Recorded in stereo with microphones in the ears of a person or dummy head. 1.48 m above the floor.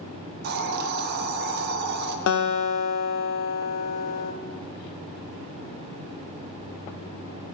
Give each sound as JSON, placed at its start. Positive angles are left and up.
{"t": 0.4, "sound": "a hiss", "side_deg": -50, "distance_m": 0.7}
{"t": 2.3, "sound": "a guitar", "side_deg": 70, "distance_m": 0.6}